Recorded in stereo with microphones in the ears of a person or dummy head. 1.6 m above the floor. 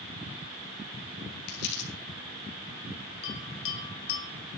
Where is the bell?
60° left (ahead or behind), 2.5 m.